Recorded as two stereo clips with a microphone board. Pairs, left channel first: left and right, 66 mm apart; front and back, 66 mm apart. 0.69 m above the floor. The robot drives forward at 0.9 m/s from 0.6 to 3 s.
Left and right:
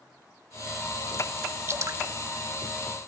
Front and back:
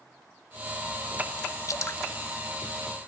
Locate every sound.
1.7 s dripping: 40° right, 0.7 m; by 2.0 s 60° right, 0.5 m